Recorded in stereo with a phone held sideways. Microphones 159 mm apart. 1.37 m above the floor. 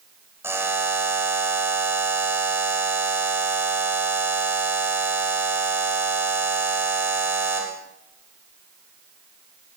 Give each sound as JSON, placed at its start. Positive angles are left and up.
{"t": 0.4, "sound": "a buzzer", "side_deg": -15, "distance_m": 4.5}